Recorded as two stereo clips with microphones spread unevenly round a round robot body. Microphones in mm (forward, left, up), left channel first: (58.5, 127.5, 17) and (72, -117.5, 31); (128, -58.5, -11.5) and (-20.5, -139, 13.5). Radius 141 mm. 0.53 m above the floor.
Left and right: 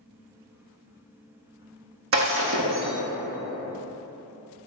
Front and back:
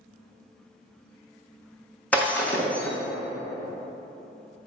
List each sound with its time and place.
2.1 s breaking glass: 55° right, 1.7 m